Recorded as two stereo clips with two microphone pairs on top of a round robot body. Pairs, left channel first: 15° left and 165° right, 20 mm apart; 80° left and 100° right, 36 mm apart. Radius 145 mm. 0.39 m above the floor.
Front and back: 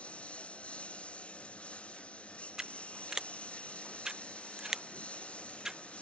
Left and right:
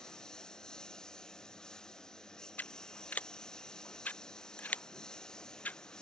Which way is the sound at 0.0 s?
10° left.